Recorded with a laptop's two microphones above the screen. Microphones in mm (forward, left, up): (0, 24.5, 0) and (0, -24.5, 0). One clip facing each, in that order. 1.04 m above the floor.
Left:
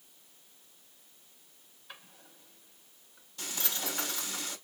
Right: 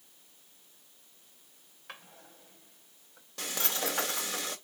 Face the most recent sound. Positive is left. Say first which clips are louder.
# right 4 dB
turn(degrees=-80)